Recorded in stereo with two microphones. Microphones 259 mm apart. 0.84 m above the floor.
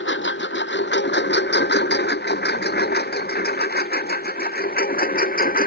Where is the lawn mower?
45° left (ahead or behind); by 5.7 s 35° left (ahead or behind).